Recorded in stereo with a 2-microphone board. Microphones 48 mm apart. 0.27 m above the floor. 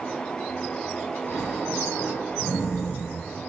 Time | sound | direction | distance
1.3 | snoring | 40° left (ahead or behind) | 1.3 m